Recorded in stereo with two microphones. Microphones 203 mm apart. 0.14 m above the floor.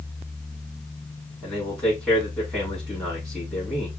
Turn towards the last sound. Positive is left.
turn(degrees=0)  # may be behind; listen again after turning